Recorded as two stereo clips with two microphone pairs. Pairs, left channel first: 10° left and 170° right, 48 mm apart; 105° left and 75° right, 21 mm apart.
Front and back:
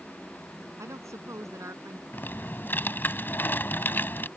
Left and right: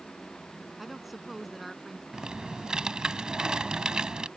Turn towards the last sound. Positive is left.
turn(degrees=-30)